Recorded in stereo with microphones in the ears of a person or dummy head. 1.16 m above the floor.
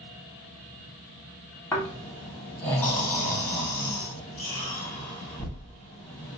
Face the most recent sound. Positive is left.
turn(degrees=10)  # may be behind; listen again after turning